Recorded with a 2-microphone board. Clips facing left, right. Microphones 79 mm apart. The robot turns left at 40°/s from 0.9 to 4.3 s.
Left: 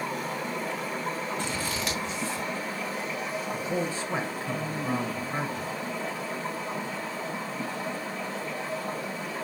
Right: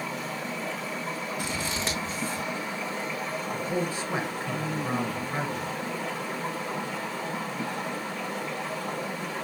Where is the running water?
50° left, 6 m; by 9.4 s 85° right, 6 m.